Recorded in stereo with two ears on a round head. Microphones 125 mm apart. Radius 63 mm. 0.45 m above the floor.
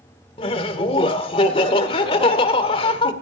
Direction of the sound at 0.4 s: 40° left (ahead or behind).